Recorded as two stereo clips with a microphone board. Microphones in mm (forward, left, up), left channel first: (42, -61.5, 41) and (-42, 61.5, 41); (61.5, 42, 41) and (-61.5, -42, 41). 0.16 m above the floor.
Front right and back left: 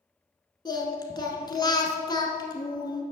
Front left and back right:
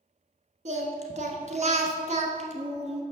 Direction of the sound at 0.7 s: 115° right.